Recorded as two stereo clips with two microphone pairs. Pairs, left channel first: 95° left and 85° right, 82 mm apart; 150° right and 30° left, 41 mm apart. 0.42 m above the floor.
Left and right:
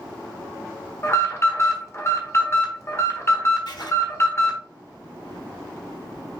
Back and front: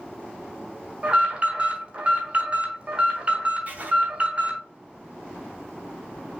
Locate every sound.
1.0 s an alarm: 65° left, 1.2 m
3.7 s writing: 75° left, 1.3 m